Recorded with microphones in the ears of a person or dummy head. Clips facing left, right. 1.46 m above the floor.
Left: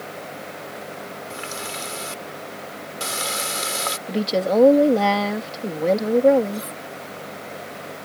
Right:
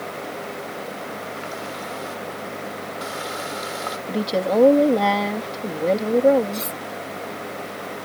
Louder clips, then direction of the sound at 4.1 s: Left 1 dB; 10° left (ahead or behind).